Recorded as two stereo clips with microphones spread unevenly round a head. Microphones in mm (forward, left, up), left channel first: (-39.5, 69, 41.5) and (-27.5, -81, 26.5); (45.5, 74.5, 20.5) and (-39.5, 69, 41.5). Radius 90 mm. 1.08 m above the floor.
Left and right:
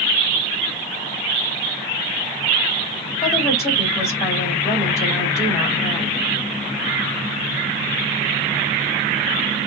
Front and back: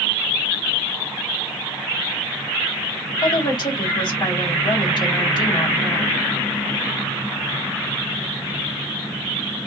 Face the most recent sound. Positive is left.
turn(degrees=20)